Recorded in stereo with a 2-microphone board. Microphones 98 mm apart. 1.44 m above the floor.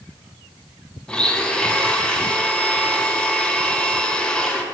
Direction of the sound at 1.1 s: 10° left (ahead or behind).